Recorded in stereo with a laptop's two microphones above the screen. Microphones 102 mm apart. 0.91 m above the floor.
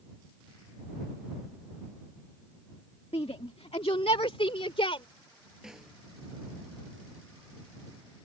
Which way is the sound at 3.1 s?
75° left (ahead or behind).